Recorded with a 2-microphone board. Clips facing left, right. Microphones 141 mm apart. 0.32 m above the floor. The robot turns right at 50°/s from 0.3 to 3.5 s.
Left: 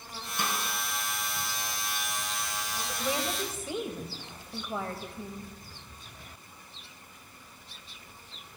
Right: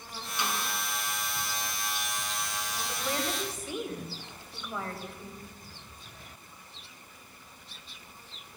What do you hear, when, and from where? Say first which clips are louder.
0.4 s a snare drum: even; 50° left (ahead or behind), 3.5 m; by 0.6 s 60° left (ahead or behind), 3.5 m
2.9 s a woman speaking: left 1 dB; 10° left, 1.6 m; by 5.5 s 40° left, 1.6 m